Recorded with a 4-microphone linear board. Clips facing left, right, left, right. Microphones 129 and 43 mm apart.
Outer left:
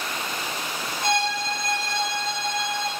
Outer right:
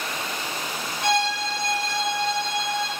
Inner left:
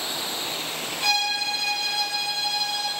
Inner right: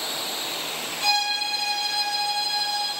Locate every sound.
1.0 s a violin: 10° left (ahead or behind), 1.4 m